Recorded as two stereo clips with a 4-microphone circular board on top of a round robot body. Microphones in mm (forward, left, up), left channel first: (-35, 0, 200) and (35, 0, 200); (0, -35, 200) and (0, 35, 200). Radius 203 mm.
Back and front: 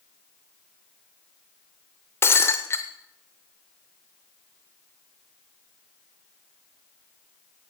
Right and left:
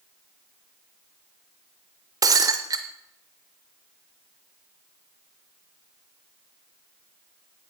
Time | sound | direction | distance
2.2 | breaking glass | 125° left | 0.5 m